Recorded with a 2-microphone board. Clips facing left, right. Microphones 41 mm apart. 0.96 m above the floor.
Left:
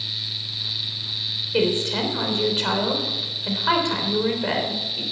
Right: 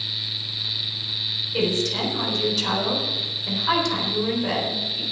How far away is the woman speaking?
About 3.5 m.